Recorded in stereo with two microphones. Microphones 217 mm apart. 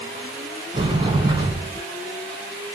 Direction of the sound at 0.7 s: 20° right (ahead or behind).